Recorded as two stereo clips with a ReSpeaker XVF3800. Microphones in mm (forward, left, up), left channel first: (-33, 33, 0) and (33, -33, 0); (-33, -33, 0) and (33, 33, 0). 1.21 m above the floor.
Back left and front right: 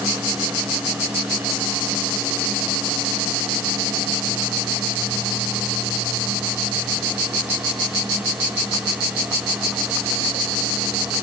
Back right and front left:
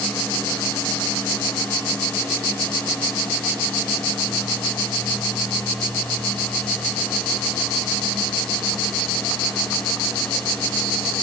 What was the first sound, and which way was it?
Only background noise.